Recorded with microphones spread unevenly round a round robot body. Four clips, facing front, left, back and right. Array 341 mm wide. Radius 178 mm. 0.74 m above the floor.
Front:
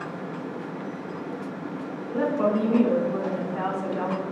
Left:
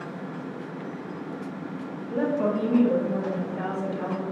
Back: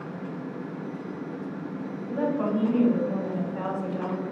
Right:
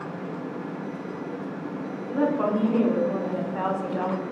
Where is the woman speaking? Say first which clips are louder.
Right 1 dB, front 3 dB; 80° right, 2 m; by 4.2 s 60° right, 1.1 m.